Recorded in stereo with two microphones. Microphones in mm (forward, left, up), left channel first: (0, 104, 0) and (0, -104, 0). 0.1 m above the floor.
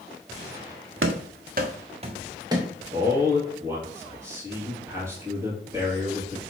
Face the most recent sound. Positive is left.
turn(degrees=-10)  # may be behind; listen again after turning